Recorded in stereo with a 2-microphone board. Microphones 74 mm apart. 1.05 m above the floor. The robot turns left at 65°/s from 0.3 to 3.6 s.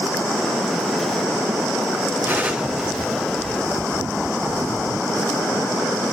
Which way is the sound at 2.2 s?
30° right (ahead or behind).